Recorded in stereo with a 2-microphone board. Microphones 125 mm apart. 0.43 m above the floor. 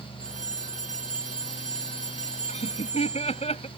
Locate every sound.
0.2 s a phone ringing: 75° right (ahead or behind)
2.5 s laughter: 60° left (ahead or behind)